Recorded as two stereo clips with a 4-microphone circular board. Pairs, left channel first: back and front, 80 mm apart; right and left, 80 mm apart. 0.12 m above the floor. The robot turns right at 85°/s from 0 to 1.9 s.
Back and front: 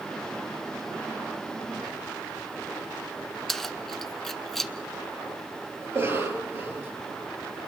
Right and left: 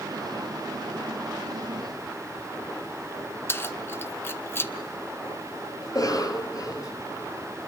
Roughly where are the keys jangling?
Right.